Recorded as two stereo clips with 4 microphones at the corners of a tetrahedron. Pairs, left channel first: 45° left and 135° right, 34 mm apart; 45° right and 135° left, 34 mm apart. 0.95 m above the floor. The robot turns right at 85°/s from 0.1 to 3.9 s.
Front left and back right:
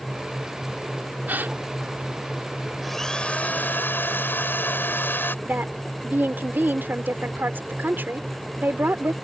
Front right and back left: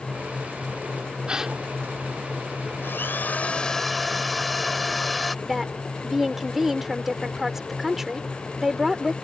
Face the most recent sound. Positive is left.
turn(degrees=-145)